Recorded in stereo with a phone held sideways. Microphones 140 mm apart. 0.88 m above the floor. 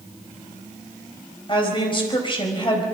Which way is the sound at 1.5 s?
35° left (ahead or behind).